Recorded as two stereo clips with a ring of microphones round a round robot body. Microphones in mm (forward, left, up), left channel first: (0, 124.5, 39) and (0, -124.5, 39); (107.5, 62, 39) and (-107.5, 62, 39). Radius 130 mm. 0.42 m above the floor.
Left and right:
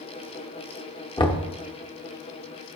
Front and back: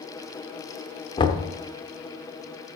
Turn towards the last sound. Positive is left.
turn(degrees=40)